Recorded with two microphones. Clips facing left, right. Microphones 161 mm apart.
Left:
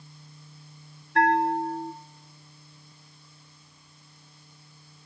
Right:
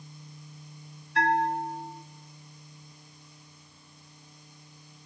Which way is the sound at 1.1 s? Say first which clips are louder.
Left 4 dB; 55° left (ahead or behind).